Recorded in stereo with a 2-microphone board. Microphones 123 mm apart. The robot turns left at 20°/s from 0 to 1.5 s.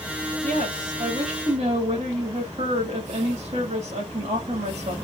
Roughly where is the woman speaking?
Right.